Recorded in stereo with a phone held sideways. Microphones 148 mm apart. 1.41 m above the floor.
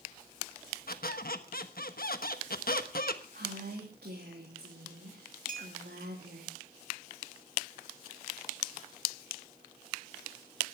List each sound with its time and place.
0.9 s a squeak: 70° left (ahead or behind), 1.2 m
3.3 s a woman speaking: 85° right, 3 m
5.5 s a clink: 55° right (ahead or behind), 1.5 m